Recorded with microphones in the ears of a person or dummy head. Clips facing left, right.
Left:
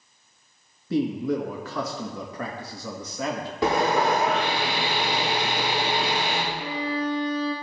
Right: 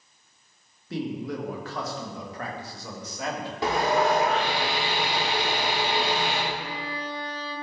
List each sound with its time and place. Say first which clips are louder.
0.9 s a man speaking: left 7 dB; 75° left (ahead or behind), 1.9 m
3.6 s sawing: left 1 dB; 60° left (ahead or behind), 2.5 m
6.5 s a violin: left 6 dB; 70° left (ahead or behind), 1.8 m